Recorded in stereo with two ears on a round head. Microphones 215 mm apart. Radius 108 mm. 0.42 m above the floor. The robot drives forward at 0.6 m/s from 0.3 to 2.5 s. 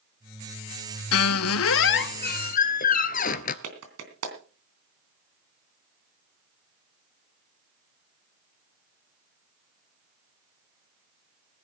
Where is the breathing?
No breathing in this recording.